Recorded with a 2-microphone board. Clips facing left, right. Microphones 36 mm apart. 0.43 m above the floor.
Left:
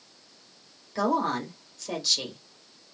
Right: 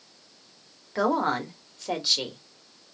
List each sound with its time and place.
0.9 s a woman speaking: 25° right (ahead or behind), 1.2 m